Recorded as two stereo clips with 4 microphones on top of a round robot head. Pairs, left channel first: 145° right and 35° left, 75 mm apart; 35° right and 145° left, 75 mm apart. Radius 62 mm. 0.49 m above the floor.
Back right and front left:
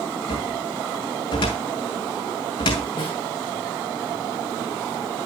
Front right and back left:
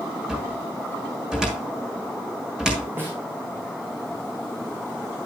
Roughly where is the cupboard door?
Behind right.